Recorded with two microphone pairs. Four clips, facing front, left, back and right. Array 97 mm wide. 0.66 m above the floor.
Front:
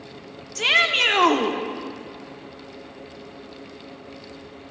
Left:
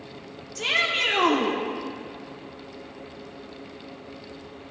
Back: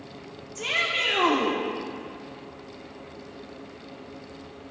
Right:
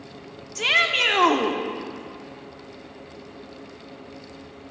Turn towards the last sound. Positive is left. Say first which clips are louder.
# right 4 dB, front 7 dB
turn(degrees=-35)